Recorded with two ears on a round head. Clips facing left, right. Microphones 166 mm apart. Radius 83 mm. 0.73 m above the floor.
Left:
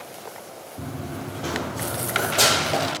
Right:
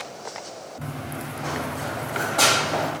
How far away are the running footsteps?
About 1.0 m.